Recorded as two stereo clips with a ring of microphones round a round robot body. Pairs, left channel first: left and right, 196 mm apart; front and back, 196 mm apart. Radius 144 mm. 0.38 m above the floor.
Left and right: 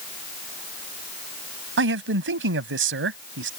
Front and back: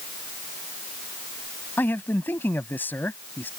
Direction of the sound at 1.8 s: 80° right.